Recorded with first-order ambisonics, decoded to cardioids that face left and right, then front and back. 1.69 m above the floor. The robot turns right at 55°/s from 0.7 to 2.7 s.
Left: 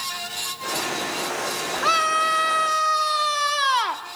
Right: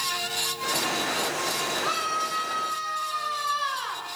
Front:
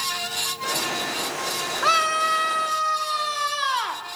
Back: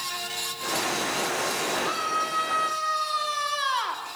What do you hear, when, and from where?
1.8 s a scream: 30° left, 3 m; by 4.0 s 80° left, 3 m